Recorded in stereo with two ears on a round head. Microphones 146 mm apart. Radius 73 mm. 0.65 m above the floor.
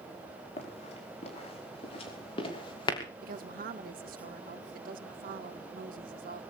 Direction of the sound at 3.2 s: 55° right (ahead or behind).